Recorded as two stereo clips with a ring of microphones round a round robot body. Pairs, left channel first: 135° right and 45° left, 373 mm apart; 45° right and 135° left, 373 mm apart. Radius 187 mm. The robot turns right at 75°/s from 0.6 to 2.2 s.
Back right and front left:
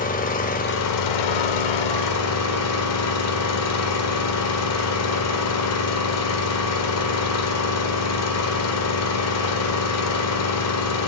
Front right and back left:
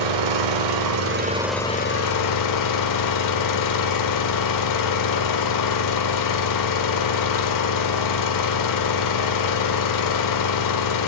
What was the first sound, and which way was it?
An engine running, 155° left.